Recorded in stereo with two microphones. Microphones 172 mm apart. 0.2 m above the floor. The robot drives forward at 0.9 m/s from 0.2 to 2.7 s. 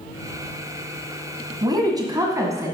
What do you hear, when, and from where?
1.6 s a woman speaking: 25° right (ahead or behind), 1.2 m; by 2.7 s 20° right (ahead or behind), 1.6 m